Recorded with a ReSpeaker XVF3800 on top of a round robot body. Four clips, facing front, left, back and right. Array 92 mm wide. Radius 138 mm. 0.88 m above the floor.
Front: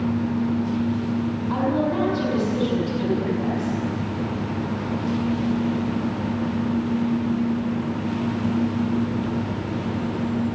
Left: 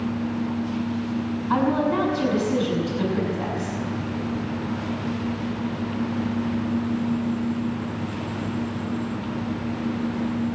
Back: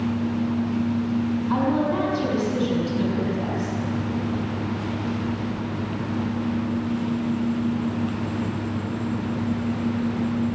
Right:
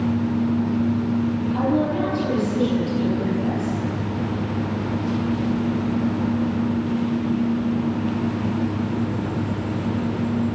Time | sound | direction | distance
1.5 | a woman speaking | 90° left | 6.5 m